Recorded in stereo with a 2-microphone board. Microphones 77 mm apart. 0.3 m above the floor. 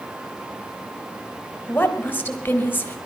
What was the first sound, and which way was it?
A woman speaking, 25° left (ahead or behind).